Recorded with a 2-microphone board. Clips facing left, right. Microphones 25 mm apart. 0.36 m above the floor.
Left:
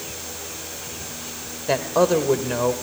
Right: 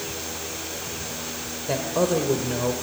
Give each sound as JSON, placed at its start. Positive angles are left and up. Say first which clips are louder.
{"t": 1.7, "sound": "a woman speaking", "louder": "left 4 dB", "side_deg": 30, "distance_m": 1.3}